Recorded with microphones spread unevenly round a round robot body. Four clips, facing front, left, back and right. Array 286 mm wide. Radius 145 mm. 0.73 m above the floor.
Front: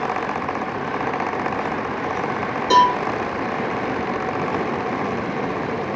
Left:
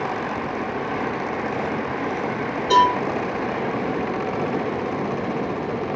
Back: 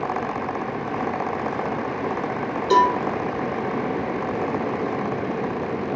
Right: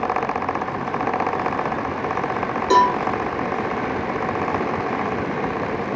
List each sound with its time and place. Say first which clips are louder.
2.7 s a cowbell: even, front 2 dB; 70° right, 1.4 m